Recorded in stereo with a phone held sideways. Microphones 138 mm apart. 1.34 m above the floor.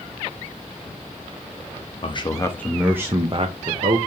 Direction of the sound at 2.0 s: 40° left (ahead or behind).